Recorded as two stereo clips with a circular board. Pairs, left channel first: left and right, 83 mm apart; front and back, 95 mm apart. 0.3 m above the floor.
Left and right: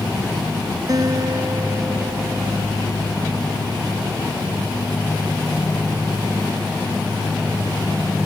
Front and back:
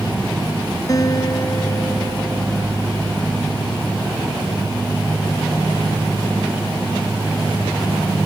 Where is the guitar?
50° right.